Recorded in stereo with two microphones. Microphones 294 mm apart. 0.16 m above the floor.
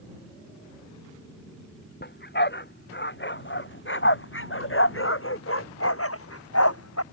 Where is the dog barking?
35° left (ahead or behind); by 7.0 s 60° left (ahead or behind).